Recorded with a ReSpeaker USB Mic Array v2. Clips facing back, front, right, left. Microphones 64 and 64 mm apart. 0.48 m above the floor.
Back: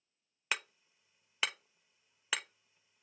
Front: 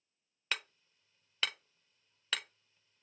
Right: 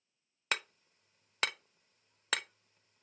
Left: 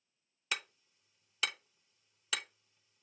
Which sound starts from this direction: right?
Hammering, at 0.5 s.